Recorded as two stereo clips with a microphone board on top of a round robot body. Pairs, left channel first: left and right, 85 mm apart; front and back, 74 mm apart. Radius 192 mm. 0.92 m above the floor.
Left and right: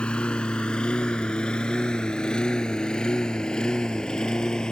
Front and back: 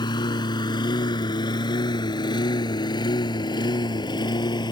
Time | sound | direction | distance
0.0 | a lawn mower | 10° left | ?